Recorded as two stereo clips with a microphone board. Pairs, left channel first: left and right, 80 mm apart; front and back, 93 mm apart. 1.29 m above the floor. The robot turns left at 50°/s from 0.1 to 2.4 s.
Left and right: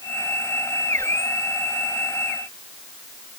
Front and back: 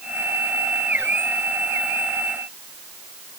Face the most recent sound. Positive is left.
No sound to turn to.